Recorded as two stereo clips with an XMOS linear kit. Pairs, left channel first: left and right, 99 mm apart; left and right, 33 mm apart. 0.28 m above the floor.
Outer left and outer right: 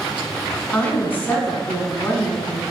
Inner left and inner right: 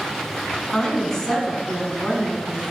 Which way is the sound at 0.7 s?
15° left (ahead or behind).